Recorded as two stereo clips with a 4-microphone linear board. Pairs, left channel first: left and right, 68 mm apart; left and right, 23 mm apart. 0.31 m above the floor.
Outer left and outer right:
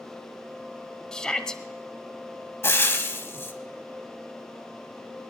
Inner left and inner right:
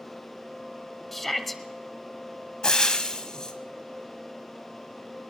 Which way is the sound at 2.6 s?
35° left (ahead or behind).